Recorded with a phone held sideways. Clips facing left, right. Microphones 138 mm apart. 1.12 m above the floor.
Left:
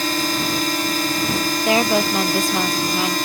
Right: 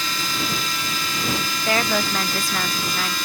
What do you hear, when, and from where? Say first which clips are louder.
0.0 s a drone: left 7 dB; 50° left (ahead or behind)
1.6 s a woman speaking: left 4 dB; 20° left (ahead or behind)